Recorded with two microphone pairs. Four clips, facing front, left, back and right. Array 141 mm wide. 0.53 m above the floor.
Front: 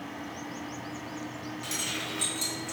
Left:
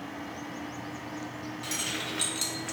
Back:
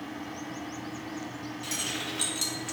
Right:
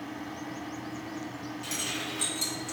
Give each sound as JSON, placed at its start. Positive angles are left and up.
{"t": 1.6, "sound": "keys jangling", "azimuth_deg": 60, "distance_m": 1.0}